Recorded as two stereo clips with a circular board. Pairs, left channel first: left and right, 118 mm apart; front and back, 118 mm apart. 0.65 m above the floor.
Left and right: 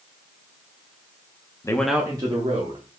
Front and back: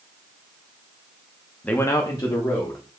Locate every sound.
1.6 s a man speaking: 70° left, 0.7 m; by 2.8 s 55° right, 1.7 m